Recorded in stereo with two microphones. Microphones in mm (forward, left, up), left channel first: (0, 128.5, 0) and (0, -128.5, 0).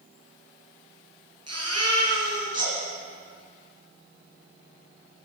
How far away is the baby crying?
About 4 m.